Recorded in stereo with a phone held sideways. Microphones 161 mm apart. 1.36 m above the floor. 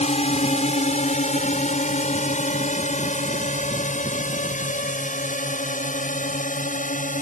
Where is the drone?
45° left (ahead or behind); by 7.2 s 55° left (ahead or behind).